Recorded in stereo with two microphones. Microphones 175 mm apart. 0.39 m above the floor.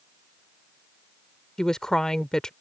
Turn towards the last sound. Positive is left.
turn(degrees=5)  # may be behind; listen again after turning